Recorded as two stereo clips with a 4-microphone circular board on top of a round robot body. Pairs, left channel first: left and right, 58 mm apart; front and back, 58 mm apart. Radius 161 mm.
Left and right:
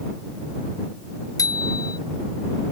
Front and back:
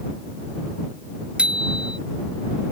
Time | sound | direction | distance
1.4 | a bicycle bell | 110° left | ?